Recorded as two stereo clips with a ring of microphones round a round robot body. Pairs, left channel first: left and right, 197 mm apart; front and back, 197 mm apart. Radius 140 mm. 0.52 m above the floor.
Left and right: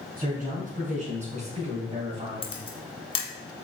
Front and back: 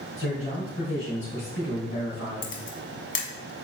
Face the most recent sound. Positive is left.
turn(degrees=25)